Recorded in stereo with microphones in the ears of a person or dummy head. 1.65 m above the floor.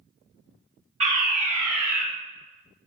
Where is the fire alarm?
35° right (ahead or behind), 1.7 m.